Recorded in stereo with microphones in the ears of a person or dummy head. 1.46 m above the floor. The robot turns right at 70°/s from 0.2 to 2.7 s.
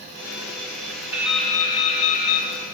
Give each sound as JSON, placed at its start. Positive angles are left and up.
{"t": 1.1, "sound": "dripping", "azimuth_deg": -15, "distance_m": 0.7}